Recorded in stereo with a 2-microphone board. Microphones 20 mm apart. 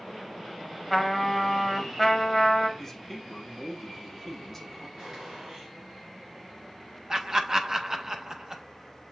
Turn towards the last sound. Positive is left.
turn(degrees=-30)  # may be behind; listen again after turning